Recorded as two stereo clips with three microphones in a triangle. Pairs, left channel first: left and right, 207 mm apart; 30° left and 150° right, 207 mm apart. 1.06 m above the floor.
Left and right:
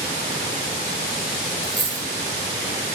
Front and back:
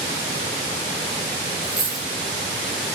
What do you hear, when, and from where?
1.6 s a dropped coin: straight ahead, 2.5 m